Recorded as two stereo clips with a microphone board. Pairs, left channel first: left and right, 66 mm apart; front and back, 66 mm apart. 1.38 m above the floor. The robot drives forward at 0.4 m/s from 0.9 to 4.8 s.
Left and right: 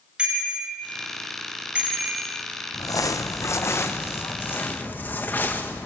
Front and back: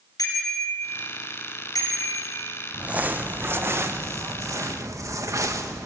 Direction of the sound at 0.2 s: 15° right.